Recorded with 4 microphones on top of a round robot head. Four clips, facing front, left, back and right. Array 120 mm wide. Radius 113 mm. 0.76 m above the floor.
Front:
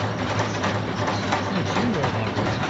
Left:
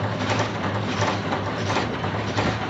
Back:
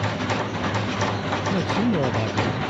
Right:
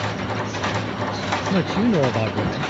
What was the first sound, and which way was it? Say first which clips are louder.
A man speaking: right 6 dB, back 1 dB; 105° right.